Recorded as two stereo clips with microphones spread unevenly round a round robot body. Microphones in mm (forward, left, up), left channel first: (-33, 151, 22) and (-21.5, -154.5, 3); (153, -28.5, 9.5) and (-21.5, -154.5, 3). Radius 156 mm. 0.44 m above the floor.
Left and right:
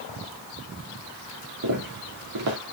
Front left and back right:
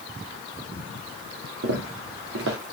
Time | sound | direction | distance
1.6 | footsteps | 120° right | 4 m